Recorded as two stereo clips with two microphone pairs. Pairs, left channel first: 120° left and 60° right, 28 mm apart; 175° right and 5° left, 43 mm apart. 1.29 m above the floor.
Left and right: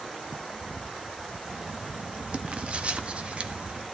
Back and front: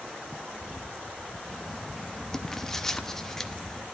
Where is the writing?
95° right, 0.9 m.